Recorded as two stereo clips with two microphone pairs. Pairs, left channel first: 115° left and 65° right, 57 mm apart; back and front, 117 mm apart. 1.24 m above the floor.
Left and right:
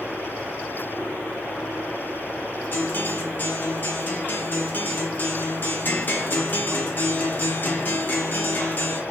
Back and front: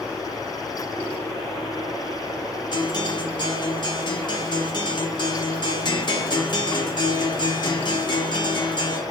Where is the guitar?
155° left, 0.5 m.